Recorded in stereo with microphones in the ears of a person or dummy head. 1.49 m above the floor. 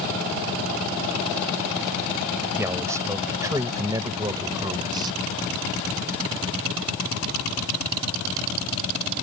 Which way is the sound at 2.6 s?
10° right (ahead or behind).